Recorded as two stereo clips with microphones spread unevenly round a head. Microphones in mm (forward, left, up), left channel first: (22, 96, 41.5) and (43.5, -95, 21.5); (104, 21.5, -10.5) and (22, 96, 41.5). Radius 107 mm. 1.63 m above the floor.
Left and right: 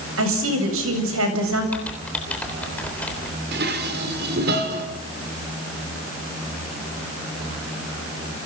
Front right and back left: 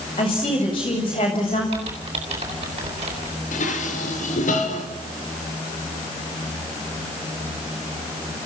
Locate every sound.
0.2 s a woman speaking: 105° right, 8 m
1.7 s typing on a keyboard: straight behind, 3.5 m
3.5 s dishes clattering: 50° right, 3.5 m